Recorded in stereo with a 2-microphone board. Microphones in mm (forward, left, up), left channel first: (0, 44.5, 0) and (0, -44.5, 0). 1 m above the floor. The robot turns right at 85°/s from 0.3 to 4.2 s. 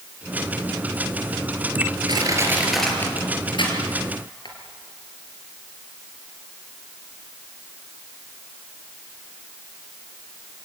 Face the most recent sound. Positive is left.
turn(degrees=55)  # may be behind; listen again after turning